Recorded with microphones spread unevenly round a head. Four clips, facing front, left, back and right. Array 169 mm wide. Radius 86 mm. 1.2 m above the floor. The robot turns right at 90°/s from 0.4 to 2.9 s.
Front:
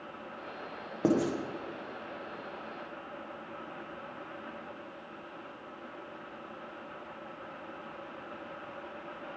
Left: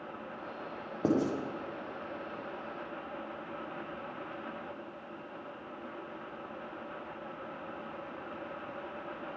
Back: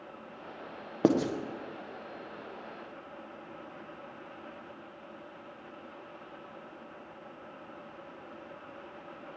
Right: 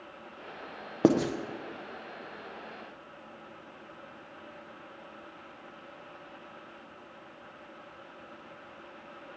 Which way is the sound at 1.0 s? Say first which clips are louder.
Right 5 dB, back 2 dB; 115° right.